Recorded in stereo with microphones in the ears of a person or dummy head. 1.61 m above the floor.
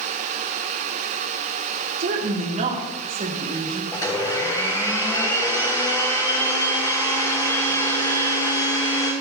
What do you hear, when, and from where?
2.0 s a woman speaking: 50° right (ahead or behind), 3 m; by 3.8 s 25° right (ahead or behind), 1.9 m
3.9 s a blender: 20° left (ahead or behind), 3 m